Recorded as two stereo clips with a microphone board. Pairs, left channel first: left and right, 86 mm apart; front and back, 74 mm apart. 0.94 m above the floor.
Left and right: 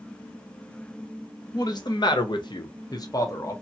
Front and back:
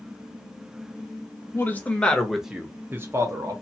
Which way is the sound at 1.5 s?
55° left.